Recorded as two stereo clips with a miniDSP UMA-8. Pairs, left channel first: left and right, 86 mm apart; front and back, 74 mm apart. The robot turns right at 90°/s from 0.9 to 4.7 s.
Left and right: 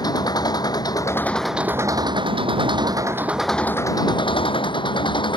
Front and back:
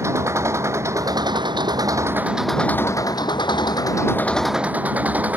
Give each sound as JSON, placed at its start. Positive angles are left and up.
{"t": 0.0, "sound": "an engine running", "azimuth_deg": 130}